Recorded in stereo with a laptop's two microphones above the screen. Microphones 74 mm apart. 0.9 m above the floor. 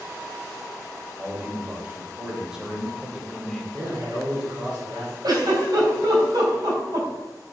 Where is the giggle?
65° right (ahead or behind), 3.5 m.